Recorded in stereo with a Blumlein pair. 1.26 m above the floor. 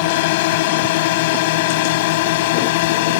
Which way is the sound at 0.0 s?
50° left.